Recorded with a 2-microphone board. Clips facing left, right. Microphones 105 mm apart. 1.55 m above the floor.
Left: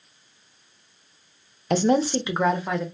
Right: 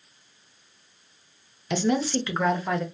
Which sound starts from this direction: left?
A woman speaking, at 1.7 s.